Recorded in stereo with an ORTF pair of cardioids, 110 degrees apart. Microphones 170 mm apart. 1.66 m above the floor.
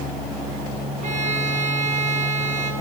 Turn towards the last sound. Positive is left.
turn(degrees=-50)